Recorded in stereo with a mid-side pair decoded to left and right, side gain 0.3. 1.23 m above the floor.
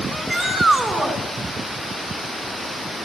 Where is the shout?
35° right, 6 m.